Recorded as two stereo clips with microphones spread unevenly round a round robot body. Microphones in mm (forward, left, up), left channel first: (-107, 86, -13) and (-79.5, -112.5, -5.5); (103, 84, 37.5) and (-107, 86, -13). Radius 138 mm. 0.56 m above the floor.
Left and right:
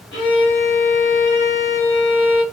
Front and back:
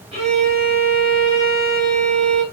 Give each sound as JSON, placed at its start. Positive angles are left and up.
{"t": 0.1, "sound": "a violin", "azimuth_deg": 120, "distance_m": 3.0}